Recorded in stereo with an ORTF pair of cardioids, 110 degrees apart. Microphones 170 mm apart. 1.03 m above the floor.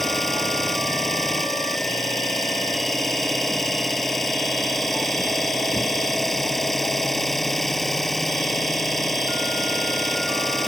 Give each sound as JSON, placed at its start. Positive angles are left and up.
{"t": 0.0, "sound": "an engine running", "azimuth_deg": 0}